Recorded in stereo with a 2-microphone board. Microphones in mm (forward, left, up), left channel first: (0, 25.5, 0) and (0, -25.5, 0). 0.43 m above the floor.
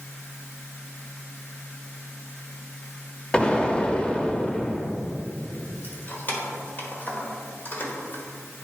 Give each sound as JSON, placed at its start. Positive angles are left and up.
{"t": 3.3, "sound": "an explosion", "side_deg": 20, "distance_m": 0.5}
{"t": 5.8, "sound": "keys jangling", "side_deg": 40, "distance_m": 1.2}